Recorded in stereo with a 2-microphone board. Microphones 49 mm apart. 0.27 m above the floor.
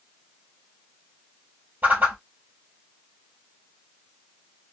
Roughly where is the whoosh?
Right.